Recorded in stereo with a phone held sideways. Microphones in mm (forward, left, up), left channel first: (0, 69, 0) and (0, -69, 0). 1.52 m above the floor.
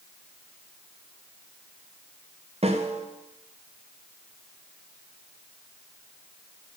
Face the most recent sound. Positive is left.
turn(degrees=-50)  # may be behind; listen again after turning